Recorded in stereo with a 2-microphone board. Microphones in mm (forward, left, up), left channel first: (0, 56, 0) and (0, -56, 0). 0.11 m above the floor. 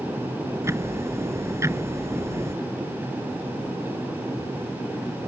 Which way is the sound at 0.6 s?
25° right (ahead or behind).